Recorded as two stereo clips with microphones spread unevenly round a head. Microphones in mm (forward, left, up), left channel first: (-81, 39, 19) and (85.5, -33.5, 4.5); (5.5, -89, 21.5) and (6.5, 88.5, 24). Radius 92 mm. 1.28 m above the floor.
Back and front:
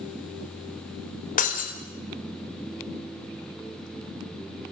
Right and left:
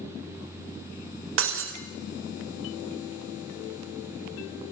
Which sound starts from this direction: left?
Breaking glass, at 1.4 s.